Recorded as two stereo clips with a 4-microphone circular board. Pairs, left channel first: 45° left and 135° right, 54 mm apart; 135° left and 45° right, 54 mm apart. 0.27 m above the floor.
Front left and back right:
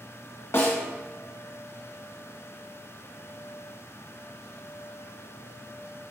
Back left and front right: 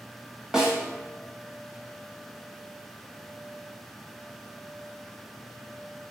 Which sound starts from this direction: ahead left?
A snare drum, at 0.5 s.